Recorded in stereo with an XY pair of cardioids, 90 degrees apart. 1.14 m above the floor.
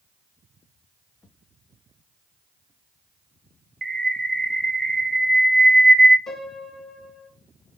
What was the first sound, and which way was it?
A bird, 45° right.